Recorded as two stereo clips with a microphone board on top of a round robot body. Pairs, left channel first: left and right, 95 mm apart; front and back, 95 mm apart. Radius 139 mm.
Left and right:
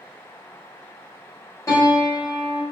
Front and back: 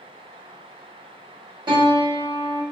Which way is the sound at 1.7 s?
145° left.